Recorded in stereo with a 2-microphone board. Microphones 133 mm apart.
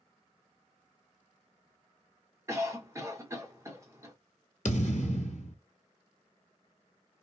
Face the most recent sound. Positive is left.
turn(degrees=70)  # may be behind; listen again after turning